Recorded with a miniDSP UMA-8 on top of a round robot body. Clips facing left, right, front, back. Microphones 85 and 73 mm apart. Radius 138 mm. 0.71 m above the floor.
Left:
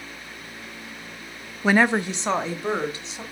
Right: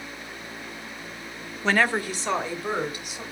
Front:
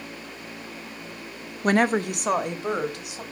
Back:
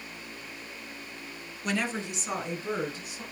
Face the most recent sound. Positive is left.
turn(degrees=25)